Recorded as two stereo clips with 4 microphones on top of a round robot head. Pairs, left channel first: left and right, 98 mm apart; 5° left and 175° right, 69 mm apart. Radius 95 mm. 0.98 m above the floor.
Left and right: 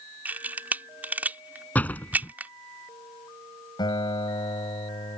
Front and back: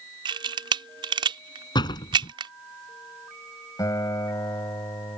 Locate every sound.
0.2 s a camera shutter: 165° right
1.8 s a door slam: 15° left
3.8 s a guitar: 45° left